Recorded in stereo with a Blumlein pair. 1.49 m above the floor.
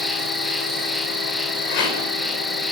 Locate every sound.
0.0 s an insect: 5° left, 1.3 m
1.7 s a rattle: 45° left, 5.5 m